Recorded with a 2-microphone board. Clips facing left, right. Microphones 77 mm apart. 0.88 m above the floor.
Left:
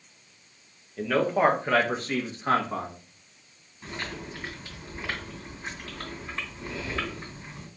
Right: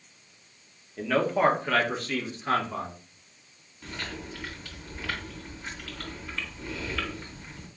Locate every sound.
1.0 s a man speaking: centre (ahead or behind), 1.0 m; by 2.9 s 50° left (ahead or behind), 1.2 m
3.8 s chewing: 25° left (ahead or behind), 2.5 m